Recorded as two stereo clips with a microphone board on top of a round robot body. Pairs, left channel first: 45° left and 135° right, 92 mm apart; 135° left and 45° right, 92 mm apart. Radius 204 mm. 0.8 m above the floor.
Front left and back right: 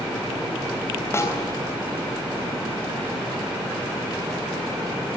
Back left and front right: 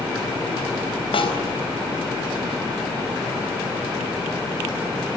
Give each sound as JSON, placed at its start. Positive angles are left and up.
{"t": 1.1, "sound": "a snare drum", "azimuth_deg": 110, "distance_m": 4.0}